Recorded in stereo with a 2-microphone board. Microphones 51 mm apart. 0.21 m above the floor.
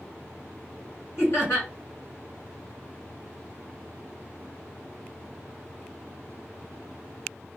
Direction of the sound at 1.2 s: 55° left (ahead or behind).